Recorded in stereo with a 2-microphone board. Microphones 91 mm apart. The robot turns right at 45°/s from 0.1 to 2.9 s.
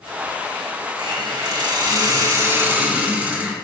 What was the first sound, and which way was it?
A hiss, 110° right.